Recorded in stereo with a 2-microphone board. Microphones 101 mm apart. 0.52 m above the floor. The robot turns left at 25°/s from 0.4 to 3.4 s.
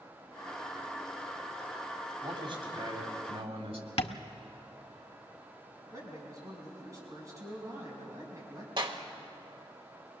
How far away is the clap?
About 1.3 m.